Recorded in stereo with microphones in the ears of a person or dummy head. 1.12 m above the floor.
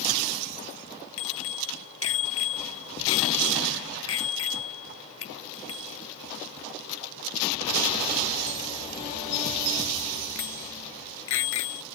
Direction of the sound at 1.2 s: 80° left.